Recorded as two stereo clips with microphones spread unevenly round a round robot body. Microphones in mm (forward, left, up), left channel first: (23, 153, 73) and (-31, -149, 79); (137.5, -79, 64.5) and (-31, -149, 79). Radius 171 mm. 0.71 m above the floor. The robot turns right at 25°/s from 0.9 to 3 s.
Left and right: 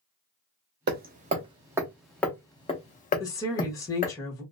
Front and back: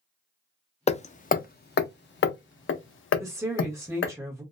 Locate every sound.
0.9 s hammering: 40° right, 0.5 m; by 4.2 s 15° left, 0.5 m
3.2 s a woman speaking: 140° left, 1.1 m